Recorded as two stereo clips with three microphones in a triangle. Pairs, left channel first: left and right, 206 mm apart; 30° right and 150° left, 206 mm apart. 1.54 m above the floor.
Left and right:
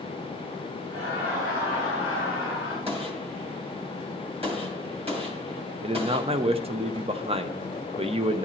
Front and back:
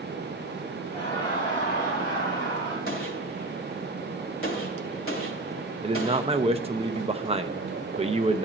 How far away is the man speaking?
About 0.7 m.